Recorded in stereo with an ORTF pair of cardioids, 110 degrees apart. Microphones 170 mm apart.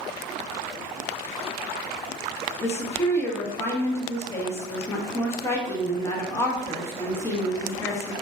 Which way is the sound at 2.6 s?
15° left.